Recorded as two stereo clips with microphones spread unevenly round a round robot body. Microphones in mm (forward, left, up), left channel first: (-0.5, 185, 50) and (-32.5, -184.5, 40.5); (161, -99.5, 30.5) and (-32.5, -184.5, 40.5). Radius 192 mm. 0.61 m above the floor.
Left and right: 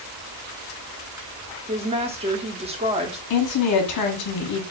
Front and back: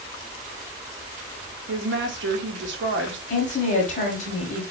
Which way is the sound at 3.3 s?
65° left.